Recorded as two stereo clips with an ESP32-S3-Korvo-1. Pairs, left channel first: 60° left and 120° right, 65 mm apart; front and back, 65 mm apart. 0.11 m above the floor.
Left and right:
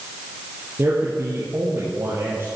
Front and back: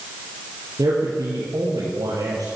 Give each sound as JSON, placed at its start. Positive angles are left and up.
{"t": 0.8, "sound": "a man speaking", "azimuth_deg": -165, "distance_m": 3.5}